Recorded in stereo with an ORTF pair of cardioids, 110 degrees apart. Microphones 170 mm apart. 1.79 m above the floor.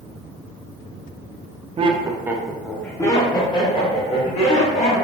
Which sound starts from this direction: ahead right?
Laughter, at 1.8 s.